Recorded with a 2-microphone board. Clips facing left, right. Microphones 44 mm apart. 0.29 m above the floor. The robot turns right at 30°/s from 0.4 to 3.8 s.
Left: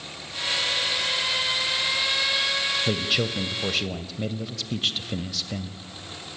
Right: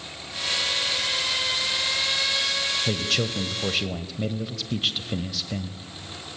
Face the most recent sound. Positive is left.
turn(degrees=-5)  # may be behind; listen again after turning